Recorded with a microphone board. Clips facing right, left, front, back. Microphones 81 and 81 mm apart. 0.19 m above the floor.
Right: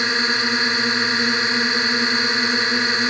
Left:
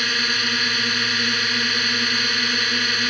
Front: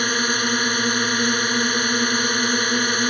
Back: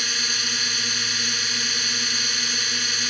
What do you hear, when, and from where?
0.0 s a drone: 30° right